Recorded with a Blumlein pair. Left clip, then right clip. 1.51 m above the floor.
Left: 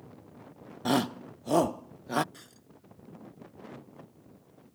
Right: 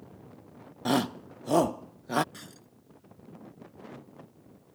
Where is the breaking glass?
15° right.